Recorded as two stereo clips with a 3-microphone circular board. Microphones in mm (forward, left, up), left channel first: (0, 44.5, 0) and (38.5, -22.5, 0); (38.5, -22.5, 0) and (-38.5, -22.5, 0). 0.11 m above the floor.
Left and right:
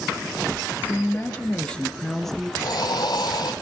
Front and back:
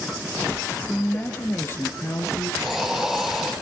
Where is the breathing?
90° left, 1.7 m.